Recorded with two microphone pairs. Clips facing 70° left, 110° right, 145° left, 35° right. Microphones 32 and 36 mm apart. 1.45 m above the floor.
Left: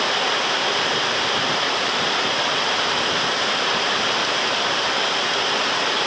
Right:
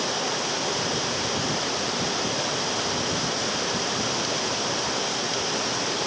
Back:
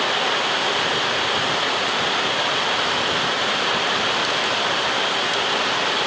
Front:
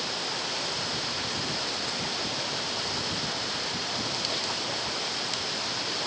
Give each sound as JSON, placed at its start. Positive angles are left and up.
{"t": 0.0, "sound": "running water", "azimuth_deg": 115}